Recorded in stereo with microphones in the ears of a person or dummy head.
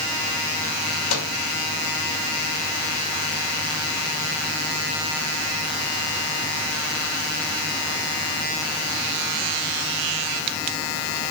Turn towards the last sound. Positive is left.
turn(degrees=70)  # may be behind; listen again after turning